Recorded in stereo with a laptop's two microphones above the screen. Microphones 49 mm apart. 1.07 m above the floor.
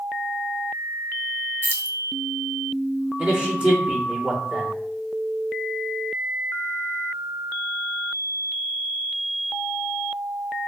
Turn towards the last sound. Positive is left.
turn(degrees=-25)  # may be behind; listen again after turning